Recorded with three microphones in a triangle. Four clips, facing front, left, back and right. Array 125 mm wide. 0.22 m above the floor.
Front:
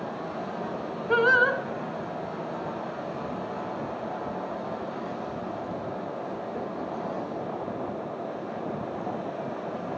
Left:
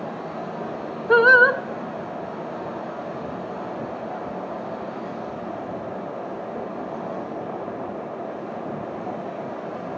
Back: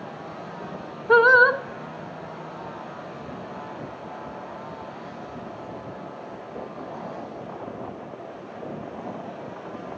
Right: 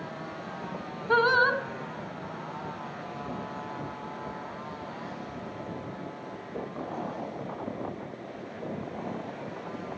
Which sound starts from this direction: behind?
Singing, at 1.1 s.